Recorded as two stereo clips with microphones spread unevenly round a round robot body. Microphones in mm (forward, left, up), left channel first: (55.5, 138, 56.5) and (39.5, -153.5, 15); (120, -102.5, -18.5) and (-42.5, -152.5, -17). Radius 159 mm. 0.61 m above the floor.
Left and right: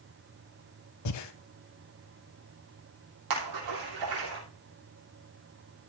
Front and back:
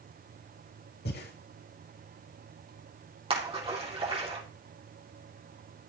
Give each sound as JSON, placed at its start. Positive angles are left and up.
{"t": 1.1, "sound": "breathing", "azimuth_deg": 60, "distance_m": 1.0}
{"t": 3.3, "sound": "a splash", "azimuth_deg": -105, "distance_m": 4.5}